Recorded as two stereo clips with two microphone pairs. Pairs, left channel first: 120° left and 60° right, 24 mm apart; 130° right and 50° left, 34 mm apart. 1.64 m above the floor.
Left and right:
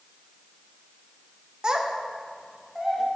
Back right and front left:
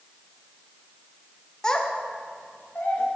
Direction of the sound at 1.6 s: 70° right.